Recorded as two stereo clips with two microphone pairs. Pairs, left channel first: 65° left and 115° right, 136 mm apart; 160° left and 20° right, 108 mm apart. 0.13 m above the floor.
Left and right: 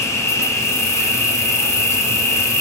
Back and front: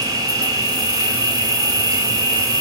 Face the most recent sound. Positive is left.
turn(degrees=5)